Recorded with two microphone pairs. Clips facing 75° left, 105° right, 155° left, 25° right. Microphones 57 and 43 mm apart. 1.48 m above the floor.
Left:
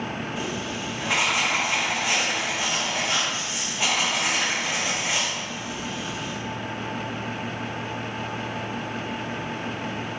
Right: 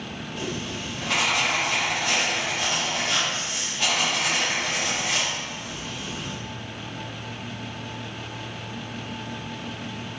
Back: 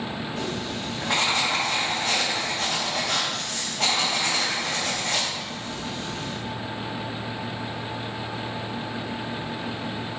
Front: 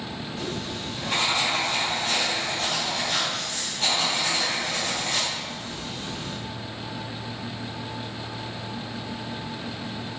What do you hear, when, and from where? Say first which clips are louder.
0.4 s writing: left 2 dB, even; 155° left, 1.2 m